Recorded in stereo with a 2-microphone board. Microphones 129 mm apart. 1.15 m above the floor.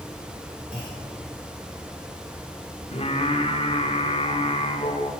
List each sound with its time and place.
0.7 s a clunk: 75° right (ahead or behind), 4 m
2.9 s singing: 50° left (ahead or behind), 1.3 m